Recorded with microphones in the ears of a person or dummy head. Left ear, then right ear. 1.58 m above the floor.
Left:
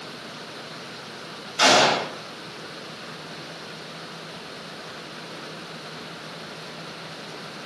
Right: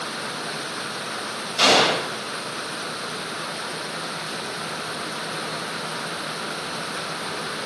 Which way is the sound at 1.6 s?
55° right (ahead or behind).